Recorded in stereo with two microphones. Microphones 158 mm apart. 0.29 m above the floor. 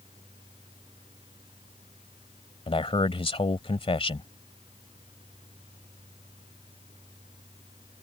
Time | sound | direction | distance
2.7 | a man speaking | 35° left (ahead or behind) | ?